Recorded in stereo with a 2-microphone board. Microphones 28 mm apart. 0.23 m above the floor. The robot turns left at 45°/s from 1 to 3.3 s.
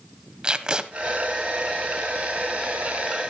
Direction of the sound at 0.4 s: 25° right (ahead or behind).